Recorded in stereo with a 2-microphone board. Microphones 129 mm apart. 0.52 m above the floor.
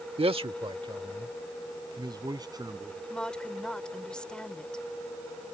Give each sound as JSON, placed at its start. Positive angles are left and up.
{"t": 0.2, "sound": "a man speaking", "side_deg": -45}
{"t": 3.1, "sound": "a woman speaking", "side_deg": 5}